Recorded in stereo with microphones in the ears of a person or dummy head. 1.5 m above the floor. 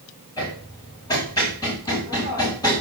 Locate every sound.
0.4 s hammering: 20° left (ahead or behind), 6.5 m